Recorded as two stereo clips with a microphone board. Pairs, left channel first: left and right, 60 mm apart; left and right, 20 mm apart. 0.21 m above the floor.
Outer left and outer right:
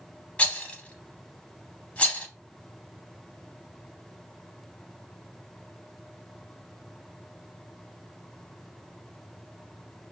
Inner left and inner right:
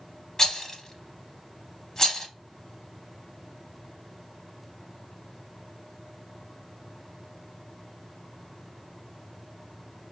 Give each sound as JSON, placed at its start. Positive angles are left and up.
{"t": 0.4, "sound": "a rattle", "side_deg": 25, "distance_m": 0.5}